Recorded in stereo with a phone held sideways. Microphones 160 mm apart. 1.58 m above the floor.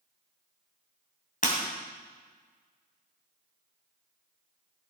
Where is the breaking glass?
60° left (ahead or behind), 2.5 m.